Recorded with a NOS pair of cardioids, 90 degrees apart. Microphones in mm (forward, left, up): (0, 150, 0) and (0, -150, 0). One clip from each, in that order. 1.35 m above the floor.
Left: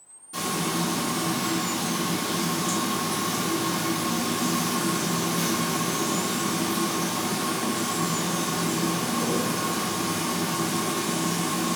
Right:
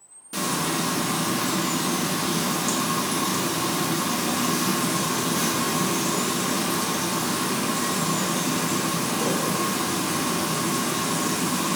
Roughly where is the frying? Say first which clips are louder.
Right 2 dB; ahead right.